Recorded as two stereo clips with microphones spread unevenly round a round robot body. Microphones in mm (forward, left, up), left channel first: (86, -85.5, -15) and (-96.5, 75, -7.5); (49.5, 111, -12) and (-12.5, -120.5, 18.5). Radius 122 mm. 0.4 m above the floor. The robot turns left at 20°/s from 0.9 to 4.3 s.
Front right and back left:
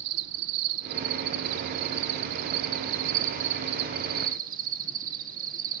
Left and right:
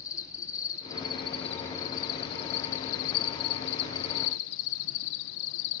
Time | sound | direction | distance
0.0 | an insect | 155° left | 1.1 m